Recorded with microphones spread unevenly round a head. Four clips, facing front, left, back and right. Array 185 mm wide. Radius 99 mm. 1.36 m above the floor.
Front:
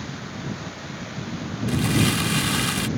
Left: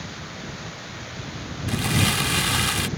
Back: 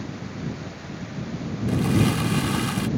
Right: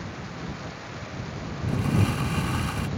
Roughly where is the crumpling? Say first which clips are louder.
Left 2 dB, back 1 dB; left.